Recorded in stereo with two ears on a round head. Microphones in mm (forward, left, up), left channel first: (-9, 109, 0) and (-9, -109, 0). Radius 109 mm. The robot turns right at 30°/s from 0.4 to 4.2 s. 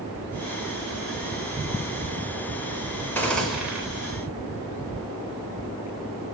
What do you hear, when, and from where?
3.1 s a gunshot: 10° left (ahead or behind), 3.5 m; by 3.8 s 10° right (ahead or behind), 3.5 m